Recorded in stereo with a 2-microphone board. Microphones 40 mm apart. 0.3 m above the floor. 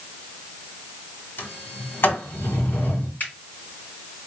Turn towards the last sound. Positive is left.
turn(degrees=45)  # may be behind; listen again after turning